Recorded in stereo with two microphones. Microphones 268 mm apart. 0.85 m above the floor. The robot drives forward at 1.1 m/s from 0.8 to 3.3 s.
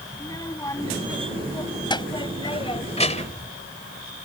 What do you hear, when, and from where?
0.1 s a child speaking: 15° left (ahead or behind); by 3.5 s 25° left (ahead or behind)